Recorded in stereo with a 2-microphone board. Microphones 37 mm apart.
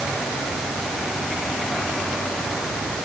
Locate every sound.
Only background noise.